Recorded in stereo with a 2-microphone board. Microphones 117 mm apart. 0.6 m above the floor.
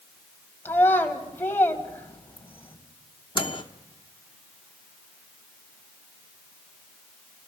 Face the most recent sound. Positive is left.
turn(degrees=45)  # may be behind; listen again after turning